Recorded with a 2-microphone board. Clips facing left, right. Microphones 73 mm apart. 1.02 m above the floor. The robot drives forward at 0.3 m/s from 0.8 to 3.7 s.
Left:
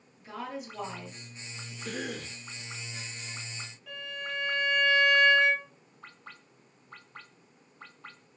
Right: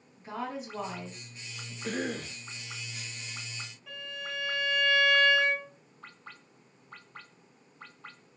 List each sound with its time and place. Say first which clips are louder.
0.2 s a woman speaking: right 2 dB; 35° right (ahead or behind), 1.4 m; by 1.7 s 40° right (ahead or behind), 1.2 m
1.8 s a cough: right 3 dB; 45° right (ahead or behind), 0.7 m; by 2.4 s 35° right (ahead or behind), 0.8 m
3.9 s a violin: left 2 dB; centre (ahead or behind), 1.8 m